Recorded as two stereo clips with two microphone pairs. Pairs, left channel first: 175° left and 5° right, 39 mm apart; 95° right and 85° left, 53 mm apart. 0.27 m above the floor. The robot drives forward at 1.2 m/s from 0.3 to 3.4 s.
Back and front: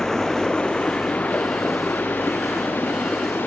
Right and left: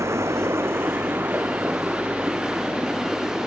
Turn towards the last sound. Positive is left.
turn(degrees=160)